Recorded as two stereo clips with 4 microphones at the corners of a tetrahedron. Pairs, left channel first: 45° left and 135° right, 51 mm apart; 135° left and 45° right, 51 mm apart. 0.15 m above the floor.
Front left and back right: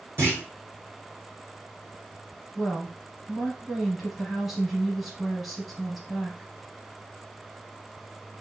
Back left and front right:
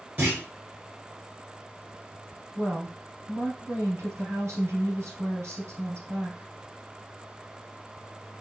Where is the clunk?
90° right, 3 m.